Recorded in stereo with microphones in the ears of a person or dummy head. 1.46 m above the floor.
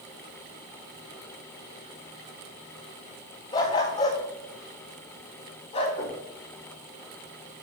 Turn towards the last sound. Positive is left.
turn(degrees=45)  # may be behind; listen again after turning